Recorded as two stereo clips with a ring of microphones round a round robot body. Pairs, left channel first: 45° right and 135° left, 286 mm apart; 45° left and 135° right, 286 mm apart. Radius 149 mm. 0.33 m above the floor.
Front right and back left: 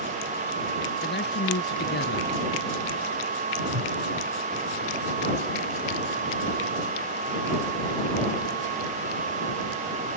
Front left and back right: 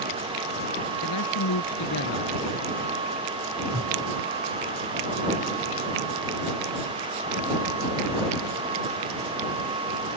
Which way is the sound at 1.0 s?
10° left.